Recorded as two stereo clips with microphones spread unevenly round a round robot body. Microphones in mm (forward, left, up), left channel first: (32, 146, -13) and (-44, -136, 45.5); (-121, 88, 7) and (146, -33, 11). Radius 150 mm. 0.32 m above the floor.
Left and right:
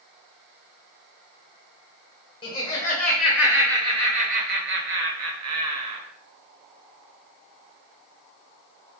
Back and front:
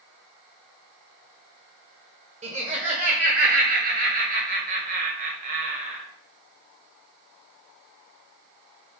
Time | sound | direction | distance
2.4 | laughter | 30° left | 1.7 m